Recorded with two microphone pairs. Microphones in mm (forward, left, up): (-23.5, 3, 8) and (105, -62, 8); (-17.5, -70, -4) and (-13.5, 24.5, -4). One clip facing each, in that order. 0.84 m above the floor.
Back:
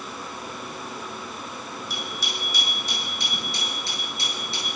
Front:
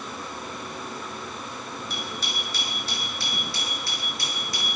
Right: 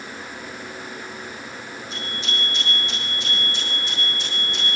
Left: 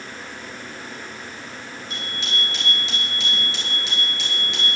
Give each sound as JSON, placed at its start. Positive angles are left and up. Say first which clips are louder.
{"t": 1.9, "sound": "a bicycle bell", "louder": "even, even", "azimuth_deg": 70, "distance_m": 9.0}